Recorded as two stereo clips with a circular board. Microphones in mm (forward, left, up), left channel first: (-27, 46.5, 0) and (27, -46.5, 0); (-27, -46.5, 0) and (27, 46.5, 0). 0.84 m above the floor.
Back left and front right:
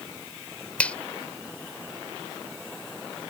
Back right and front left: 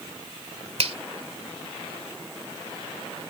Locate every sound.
0.8 s a finger snap: 40° left